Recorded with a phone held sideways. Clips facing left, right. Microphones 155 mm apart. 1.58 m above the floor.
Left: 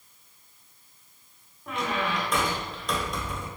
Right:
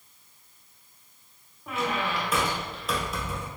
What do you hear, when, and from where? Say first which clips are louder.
1.7 s a squeak: even; 5° right (ahead or behind), 0.7 m